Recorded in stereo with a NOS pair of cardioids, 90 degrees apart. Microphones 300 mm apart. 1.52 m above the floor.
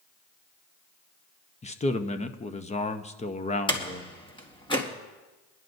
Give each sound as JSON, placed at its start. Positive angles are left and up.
{"t": 1.6, "sound": "a man speaking", "azimuth_deg": 20, "distance_m": 0.9}
{"t": 3.7, "sound": "a door slam", "azimuth_deg": 15, "distance_m": 2.0}